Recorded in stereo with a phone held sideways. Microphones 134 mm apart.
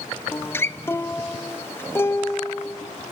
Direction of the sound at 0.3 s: 15° left (ahead or behind).